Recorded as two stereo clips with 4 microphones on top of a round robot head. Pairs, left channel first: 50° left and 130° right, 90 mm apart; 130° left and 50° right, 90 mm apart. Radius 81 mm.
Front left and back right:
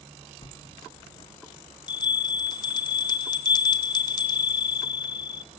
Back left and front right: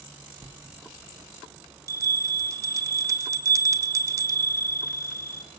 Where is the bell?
10° left, 1.5 m.